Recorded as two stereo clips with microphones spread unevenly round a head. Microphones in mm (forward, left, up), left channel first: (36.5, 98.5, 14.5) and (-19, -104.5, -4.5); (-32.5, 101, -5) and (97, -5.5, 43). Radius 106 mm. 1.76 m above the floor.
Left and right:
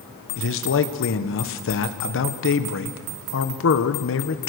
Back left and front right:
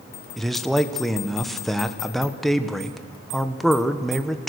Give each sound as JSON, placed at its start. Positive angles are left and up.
{"t": 0.4, "sound": "a man speaking", "azimuth_deg": 50, "distance_m": 1.3}